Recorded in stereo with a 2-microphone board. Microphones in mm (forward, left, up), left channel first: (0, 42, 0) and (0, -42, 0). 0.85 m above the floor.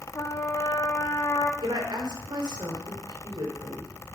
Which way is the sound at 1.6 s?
75° right (ahead or behind).